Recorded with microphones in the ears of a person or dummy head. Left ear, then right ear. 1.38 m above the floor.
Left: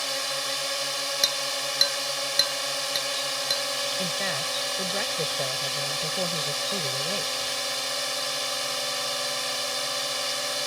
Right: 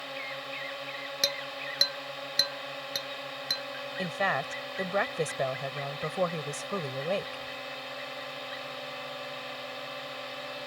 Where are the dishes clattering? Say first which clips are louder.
Left 3 dB; 5° right (ahead or behind).